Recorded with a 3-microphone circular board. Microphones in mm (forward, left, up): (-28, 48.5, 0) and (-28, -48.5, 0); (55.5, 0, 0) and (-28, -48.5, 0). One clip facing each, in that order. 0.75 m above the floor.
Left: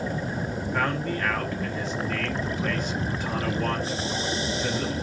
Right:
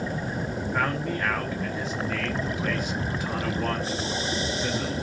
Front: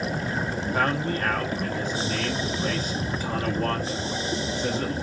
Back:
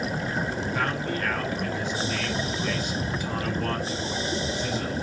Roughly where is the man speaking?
Ahead.